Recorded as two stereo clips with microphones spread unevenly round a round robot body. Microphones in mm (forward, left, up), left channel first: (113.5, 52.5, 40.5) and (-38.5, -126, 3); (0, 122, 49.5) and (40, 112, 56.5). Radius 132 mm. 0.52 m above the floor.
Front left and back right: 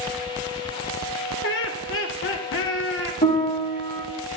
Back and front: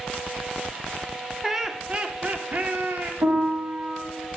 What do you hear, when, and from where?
1.4 s laughter: 75° left, 1.2 m; by 3.1 s 15° left, 1.4 m
3.2 s a piano: 5° right, 2.5 m